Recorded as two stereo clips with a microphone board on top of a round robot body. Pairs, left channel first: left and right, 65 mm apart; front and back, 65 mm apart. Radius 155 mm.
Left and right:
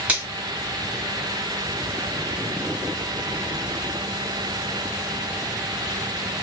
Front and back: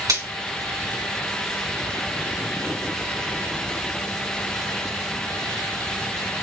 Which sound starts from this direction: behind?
A finger snap, at 0.1 s.